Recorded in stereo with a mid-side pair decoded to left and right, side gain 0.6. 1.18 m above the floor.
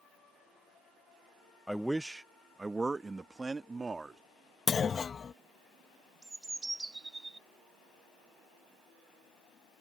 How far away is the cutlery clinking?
I don't hear cutlery clinking.